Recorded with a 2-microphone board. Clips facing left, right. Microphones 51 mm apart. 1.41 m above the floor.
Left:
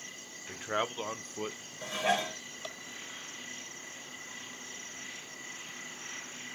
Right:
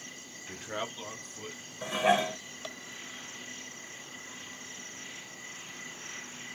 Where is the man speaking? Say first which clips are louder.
Left 4 dB; 20° left (ahead or behind), 0.7 m; by 1.6 s 50° left (ahead or behind), 0.6 m.